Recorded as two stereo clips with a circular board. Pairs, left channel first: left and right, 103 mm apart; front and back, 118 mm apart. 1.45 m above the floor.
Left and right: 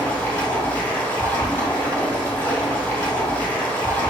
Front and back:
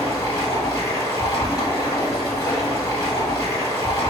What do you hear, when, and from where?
0.0 s running water: 35° left, 1.7 m